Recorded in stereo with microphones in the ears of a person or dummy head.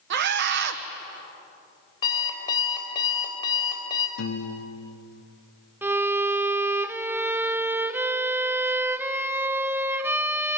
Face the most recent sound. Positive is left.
turn(degrees=-10)  # may be behind; listen again after turning